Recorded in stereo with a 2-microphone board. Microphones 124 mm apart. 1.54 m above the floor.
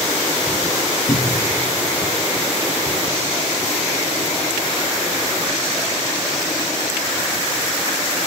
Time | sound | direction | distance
1.1 | a cupboard door | 40° left (ahead or behind) | 1.1 m